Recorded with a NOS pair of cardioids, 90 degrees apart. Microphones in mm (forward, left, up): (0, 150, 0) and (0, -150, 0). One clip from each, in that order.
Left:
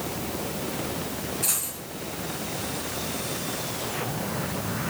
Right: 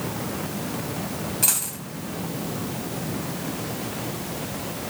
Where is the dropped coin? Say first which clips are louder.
Right 6 dB; 65° right, 4 m.